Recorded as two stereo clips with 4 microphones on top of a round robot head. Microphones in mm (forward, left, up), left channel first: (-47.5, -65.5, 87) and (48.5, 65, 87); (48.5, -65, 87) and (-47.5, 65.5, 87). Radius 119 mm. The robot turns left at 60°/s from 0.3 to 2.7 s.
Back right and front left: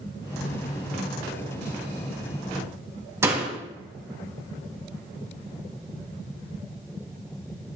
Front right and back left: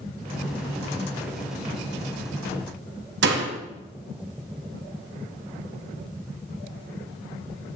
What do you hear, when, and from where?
3.2 s a door slam: 130° left, 2.0 m